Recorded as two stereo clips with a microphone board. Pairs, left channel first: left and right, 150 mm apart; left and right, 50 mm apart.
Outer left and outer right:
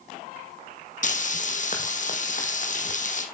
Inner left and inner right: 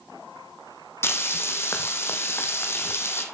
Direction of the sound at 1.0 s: 60° left (ahead or behind).